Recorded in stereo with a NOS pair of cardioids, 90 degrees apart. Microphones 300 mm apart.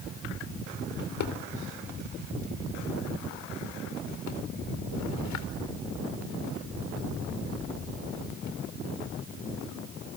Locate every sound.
1.0 s a drawer: 65° left, 3.5 m